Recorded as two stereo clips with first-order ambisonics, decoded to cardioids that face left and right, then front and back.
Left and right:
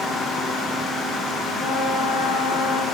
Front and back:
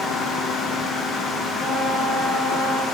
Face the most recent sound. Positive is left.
turn(degrees=105)